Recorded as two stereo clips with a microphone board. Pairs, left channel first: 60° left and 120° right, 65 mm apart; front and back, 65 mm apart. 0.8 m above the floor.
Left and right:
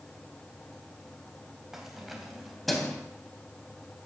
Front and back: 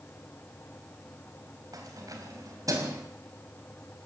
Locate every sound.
1.7 s keys jangling: 155° left, 3.5 m; by 3.0 s 145° left, 4 m